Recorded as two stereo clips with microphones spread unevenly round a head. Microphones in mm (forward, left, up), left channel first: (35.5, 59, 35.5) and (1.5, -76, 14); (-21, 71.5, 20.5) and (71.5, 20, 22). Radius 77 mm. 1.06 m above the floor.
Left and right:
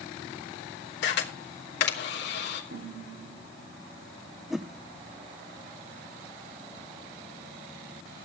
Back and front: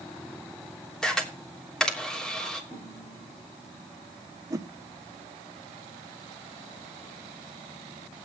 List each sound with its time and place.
1.0 s a camera shutter: 65° left, 3 m
2.7 s a snare drum: 125° right, 8 m
4.5 s a whoosh: 35° right, 0.8 m